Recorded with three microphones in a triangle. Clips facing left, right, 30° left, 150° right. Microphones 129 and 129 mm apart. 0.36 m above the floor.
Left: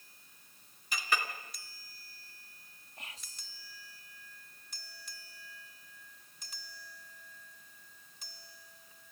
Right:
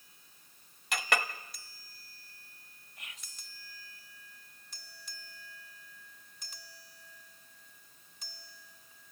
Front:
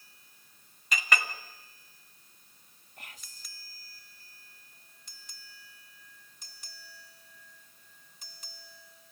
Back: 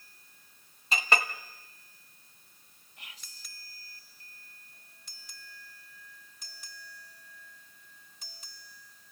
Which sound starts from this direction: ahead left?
Whispering, at 3.0 s.